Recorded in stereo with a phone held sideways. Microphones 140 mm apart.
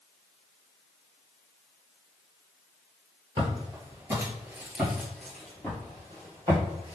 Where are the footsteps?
35° right (ahead or behind), 1.4 m; by 7.0 s 20° left (ahead or behind), 2 m.